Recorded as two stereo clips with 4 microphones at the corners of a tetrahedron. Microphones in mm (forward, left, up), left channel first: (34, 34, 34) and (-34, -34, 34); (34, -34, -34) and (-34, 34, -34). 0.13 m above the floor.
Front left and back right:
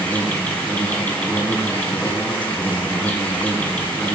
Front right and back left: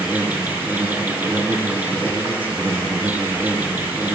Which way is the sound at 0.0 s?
95° left.